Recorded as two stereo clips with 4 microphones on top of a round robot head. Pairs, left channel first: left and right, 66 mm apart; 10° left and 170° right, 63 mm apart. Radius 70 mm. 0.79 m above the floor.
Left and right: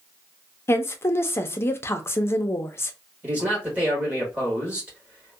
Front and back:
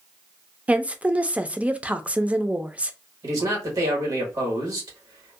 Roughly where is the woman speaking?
Behind left.